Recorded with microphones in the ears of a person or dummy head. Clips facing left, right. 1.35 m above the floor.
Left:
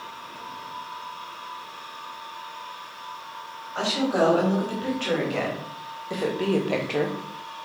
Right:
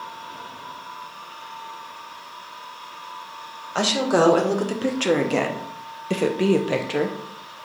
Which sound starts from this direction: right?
A woman speaking, at 3.8 s.